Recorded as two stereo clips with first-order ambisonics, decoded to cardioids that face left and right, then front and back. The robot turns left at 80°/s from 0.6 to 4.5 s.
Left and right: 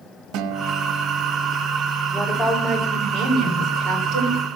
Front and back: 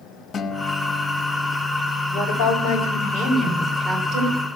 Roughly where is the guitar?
Ahead right.